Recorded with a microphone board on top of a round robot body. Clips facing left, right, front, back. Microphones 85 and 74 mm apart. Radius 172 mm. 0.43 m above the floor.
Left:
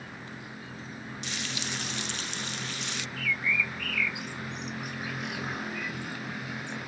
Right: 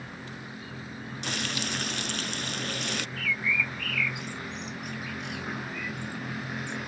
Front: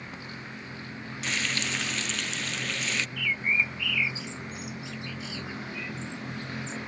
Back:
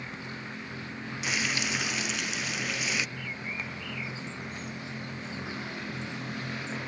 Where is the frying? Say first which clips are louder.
Right 5 dB, even; 105° right.